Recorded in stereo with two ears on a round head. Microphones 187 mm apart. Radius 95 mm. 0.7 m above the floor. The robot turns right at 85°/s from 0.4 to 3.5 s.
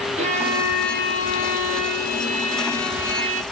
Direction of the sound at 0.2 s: 30° right.